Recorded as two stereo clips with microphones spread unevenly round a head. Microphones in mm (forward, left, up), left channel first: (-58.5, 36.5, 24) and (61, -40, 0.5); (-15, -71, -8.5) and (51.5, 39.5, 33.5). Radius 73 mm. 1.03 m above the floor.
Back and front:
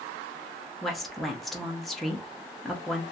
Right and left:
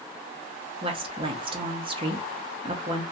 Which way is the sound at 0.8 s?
35° left.